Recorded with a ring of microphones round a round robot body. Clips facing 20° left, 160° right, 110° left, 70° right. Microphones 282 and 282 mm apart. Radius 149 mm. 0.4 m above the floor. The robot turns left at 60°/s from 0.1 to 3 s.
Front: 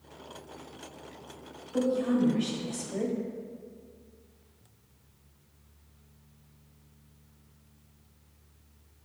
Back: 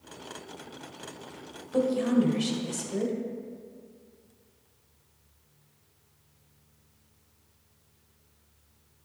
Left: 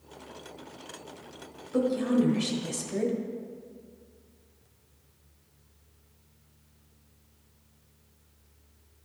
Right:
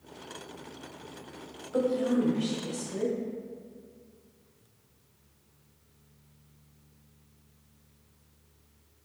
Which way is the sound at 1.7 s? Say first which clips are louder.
Back 2 dB, left 2 dB; 160° right.